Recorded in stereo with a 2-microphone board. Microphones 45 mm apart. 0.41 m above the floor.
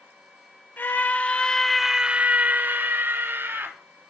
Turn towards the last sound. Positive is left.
turn(degrees=-55)  # may be behind; listen again after turning